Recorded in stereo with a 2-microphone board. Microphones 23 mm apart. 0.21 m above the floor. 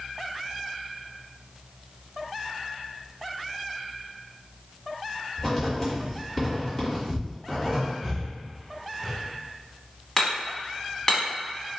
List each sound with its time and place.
5.4 s writing: 10° left (ahead or behind), 1.4 m
8.0 s breathing: 5° right (ahead or behind), 1.3 m
10.2 s hammering: 25° left (ahead or behind), 1.2 m